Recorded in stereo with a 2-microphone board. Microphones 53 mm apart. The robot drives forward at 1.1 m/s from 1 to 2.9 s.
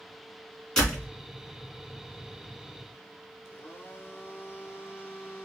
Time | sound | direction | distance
0.8 | a door slam | 10° left (ahead or behind) | 2.5 m
3.5 | a blender | 45° left (ahead or behind) | 1.3 m